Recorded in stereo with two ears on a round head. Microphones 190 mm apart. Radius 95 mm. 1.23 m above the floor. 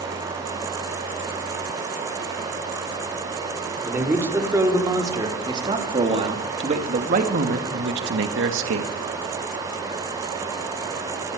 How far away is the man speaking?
About 4.5 m.